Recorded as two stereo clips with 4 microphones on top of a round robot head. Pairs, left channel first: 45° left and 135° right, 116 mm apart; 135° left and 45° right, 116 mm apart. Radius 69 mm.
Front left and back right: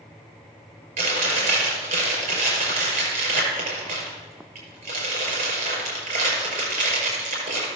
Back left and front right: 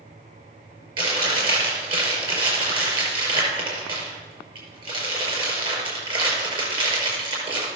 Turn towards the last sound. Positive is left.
turn(degrees=-95)